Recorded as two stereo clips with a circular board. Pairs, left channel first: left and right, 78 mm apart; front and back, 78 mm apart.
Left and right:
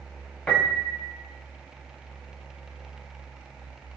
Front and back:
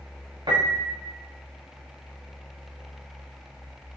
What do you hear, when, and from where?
0.5 s a piano: 160° left, 6 m